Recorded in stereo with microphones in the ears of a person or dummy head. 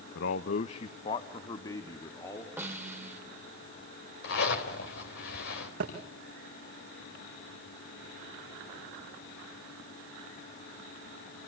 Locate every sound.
0.1 s a man speaking: 60° left (ahead or behind), 0.7 m; by 2.5 s 15° left (ahead or behind), 2.5 m
2.6 s a snare drum: 15° right (ahead or behind), 2 m
4.2 s a zipper: 65° left (ahead or behind), 3.5 m
5.8 s a thud: 60° right (ahead or behind), 6.5 m